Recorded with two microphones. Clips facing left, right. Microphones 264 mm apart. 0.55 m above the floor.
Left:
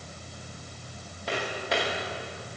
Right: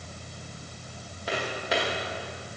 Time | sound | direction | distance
1.3 | footsteps | centre (ahead or behind) | 4.5 m